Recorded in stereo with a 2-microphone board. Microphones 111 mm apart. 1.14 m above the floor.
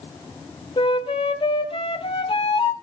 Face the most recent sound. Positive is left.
turn(degrees=55)  # may be behind; listen again after turning